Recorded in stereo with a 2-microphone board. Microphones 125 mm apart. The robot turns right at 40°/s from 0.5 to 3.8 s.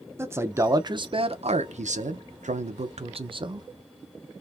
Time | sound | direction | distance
0.2 | a man speaking | 160° right | 0.5 m